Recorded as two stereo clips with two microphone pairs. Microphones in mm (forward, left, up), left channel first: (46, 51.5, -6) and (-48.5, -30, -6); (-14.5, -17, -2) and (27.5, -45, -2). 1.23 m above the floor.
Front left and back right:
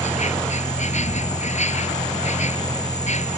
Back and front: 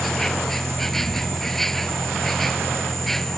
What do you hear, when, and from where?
0.0 s an insect: 60° left